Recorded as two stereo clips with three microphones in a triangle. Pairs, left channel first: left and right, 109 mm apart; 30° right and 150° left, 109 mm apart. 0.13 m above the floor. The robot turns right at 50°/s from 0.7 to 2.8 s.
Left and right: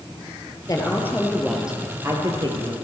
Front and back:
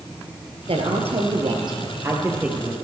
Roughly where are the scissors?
I don't hear scissors.